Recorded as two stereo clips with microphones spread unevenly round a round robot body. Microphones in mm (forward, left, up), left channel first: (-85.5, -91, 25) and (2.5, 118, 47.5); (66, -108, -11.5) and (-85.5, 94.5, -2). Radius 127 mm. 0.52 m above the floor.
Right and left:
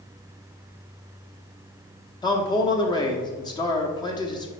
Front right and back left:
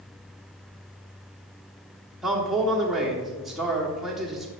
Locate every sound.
2.2 s a man speaking: 140° right, 0.9 m